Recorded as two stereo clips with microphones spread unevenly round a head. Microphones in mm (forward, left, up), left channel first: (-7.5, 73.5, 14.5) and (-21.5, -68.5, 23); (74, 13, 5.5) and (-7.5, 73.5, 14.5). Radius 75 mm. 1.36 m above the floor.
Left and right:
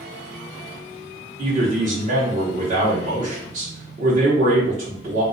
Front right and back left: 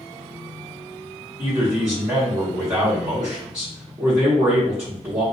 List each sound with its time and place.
1.4 s a man speaking: 135° right, 1.0 m